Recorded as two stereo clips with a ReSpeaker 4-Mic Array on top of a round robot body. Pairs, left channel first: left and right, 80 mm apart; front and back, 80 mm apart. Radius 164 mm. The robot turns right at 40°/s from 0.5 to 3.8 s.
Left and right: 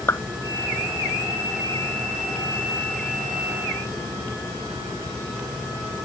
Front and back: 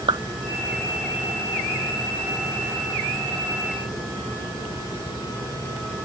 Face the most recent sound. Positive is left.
turn(degrees=-75)